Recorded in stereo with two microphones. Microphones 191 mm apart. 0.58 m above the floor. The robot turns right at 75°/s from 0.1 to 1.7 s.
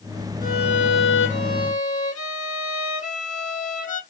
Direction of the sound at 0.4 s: 45° left.